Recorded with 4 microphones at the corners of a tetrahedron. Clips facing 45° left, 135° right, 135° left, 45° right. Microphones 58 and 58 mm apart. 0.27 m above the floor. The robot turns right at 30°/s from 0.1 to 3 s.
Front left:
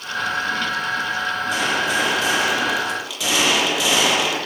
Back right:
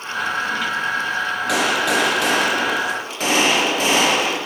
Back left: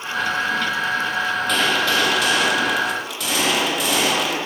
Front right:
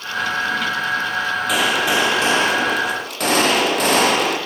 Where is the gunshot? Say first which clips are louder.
Back right 3 dB, front right 2 dB; 130° right, 9 m; by 4.4 s 85° right, 9 m.